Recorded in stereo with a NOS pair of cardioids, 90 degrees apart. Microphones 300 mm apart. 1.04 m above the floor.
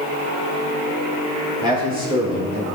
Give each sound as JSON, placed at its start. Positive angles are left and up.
{"t": 1.6, "sound": "a man speaking", "azimuth_deg": -15, "distance_m": 3.0}